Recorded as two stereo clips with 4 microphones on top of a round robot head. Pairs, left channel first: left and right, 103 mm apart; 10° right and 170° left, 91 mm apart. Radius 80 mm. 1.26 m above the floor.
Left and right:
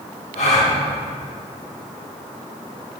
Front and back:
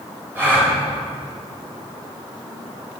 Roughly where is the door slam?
No door slam in this recording.